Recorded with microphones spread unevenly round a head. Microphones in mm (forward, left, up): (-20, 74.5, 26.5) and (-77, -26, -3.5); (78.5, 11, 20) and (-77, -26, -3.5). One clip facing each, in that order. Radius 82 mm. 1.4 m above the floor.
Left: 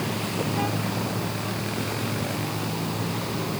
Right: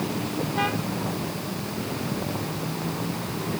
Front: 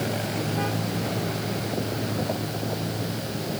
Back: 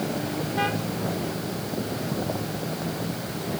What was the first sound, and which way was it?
Only background noise.